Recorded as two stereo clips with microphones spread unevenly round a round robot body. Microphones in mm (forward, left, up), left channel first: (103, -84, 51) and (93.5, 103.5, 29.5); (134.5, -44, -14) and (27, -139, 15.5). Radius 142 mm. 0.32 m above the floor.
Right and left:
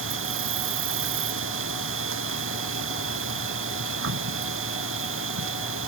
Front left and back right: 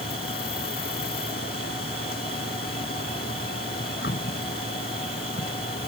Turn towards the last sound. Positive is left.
turn(degrees=100)